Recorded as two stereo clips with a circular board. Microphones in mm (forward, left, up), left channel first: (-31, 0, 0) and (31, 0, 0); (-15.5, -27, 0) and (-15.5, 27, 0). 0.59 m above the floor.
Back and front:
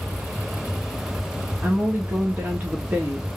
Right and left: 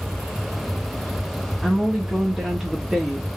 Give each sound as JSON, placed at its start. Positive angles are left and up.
{"t": 1.6, "sound": "a woman speaking", "azimuth_deg": 15, "distance_m": 1.3}